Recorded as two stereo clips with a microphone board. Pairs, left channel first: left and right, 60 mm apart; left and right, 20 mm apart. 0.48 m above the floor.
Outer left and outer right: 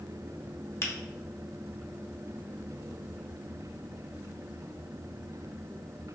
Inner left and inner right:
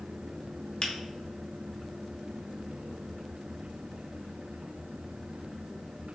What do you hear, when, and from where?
0.8 s a finger snap: 45° left (ahead or behind), 0.6 m